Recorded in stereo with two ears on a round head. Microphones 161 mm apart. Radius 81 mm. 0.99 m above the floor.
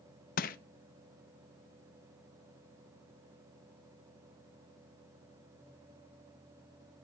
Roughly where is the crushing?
Left.